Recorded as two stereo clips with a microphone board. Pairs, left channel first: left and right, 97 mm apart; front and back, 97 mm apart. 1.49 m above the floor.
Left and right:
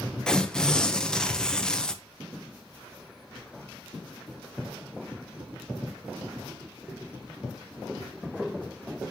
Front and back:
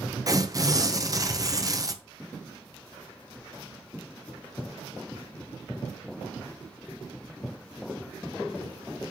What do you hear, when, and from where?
0.3 s tearing paper: 170° left, 0.5 m